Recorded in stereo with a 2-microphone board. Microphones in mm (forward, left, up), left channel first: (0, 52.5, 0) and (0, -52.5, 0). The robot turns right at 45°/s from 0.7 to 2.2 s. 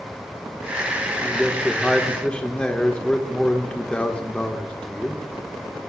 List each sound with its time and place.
1.2 s a man speaking: 5° right (ahead or behind), 1.1 m; by 5.2 s 10° left (ahead or behind), 1.1 m